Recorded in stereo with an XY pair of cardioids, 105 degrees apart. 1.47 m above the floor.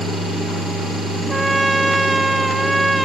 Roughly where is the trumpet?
Ahead.